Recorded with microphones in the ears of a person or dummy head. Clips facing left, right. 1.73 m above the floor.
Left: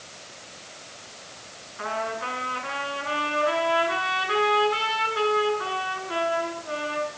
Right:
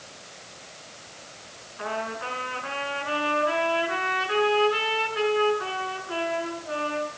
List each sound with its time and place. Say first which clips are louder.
1.8 s a trumpet: left 1 dB; 5° left (ahead or behind), 5.5 m